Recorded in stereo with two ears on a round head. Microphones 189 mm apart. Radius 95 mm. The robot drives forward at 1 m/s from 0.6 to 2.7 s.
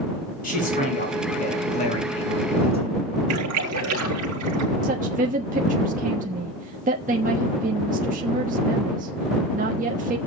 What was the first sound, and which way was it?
A man speaking, 40° left (ahead or behind).